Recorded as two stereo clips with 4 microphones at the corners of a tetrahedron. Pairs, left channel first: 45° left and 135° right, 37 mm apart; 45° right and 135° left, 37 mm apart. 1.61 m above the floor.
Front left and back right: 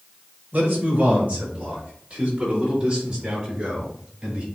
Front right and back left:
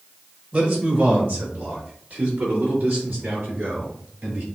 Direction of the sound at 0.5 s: 175° right.